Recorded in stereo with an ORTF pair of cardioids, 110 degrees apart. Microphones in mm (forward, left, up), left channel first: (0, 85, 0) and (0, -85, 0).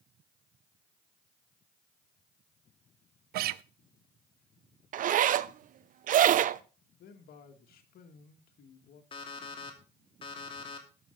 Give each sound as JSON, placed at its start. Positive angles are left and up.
{"t": 3.3, "sound": "a guitar", "azimuth_deg": -65, "distance_m": 0.5}
{"t": 4.9, "sound": "a zipper", "azimuth_deg": -50, "distance_m": 0.7}
{"t": 7.0, "sound": "a man speaking", "azimuth_deg": 65, "distance_m": 2.5}
{"t": 9.1, "sound": "an alarm clock", "azimuth_deg": 30, "distance_m": 3.0}